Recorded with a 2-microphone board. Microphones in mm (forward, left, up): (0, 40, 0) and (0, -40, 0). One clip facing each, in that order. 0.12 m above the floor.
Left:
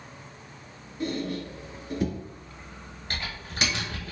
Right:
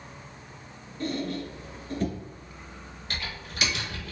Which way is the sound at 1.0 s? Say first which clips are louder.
Even; 10° left (ahead or behind).